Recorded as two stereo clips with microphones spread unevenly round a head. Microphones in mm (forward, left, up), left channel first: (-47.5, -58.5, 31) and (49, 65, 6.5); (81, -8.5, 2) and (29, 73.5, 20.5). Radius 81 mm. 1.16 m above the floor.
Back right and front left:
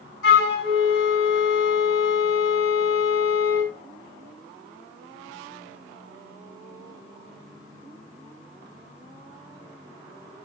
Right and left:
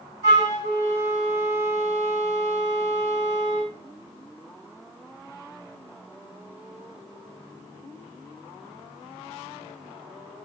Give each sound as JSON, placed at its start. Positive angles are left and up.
{"t": 0.2, "sound": "a flute", "azimuth_deg": -135, "distance_m": 3.5}